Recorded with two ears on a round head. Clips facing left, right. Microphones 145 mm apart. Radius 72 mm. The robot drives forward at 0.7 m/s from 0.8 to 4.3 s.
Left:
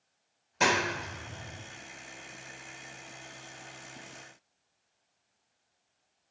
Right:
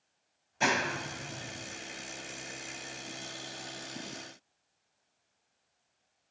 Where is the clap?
80° left, 4 m; by 1.6 s 85° left, 4 m.